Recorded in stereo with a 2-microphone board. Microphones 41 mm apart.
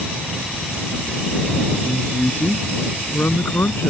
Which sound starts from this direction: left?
A man speaking, at 1.8 s.